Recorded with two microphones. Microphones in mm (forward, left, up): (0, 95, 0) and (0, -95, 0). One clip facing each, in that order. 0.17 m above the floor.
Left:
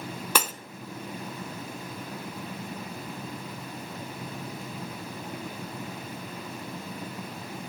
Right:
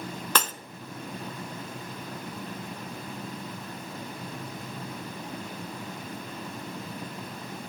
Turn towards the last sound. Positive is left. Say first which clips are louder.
# left 1 dB
turn(degrees=10)  # may be behind; listen again after turning